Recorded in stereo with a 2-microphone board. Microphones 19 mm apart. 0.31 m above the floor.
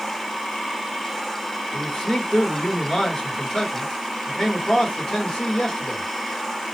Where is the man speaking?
45° left (ahead or behind), 2 m.